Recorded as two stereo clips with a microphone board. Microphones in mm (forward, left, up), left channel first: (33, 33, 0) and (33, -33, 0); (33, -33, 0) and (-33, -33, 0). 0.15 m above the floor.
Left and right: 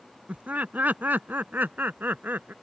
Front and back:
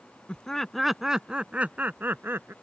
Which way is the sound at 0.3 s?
55° right.